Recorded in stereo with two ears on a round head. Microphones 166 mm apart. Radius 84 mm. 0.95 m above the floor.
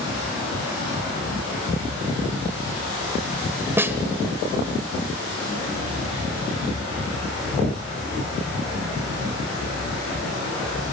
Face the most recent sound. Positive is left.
turn(degrees=-10)  # may be behind; listen again after turning